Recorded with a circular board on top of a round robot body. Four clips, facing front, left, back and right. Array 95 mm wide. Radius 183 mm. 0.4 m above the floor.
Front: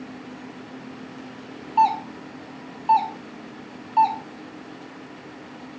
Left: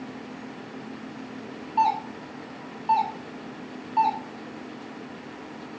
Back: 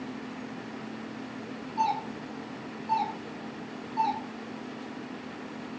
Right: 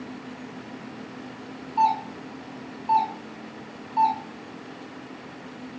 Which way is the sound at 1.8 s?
20° left.